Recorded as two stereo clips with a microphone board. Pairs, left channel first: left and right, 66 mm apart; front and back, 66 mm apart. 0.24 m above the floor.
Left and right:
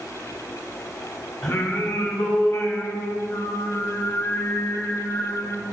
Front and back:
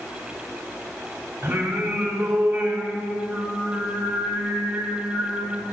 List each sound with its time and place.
1.4 s singing: 115° left, 2 m